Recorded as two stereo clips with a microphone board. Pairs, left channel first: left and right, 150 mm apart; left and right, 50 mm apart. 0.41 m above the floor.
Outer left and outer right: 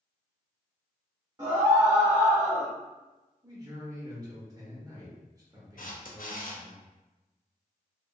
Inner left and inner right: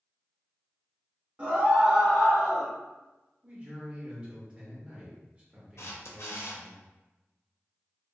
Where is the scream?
25° right (ahead or behind), 1.5 m; by 2.7 s 10° left (ahead or behind), 1.7 m.